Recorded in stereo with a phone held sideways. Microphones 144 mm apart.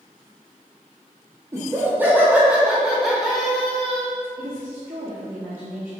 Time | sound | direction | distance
1.5 | laughter | 20° right (ahead or behind) | 1.7 m
4.4 | a woman speaking | 70° right (ahead or behind) | 2 m